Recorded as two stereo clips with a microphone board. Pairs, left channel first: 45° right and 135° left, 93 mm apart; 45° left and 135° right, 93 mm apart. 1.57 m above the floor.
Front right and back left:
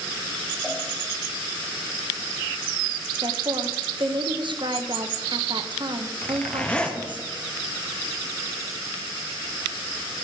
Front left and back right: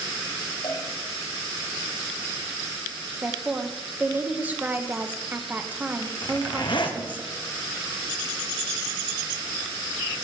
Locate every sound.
0.6 s a cowbell: 40° left, 5 m
3.2 s a woman speaking: 155° left, 1.0 m
6.2 s a zipper: 30° left, 1.3 m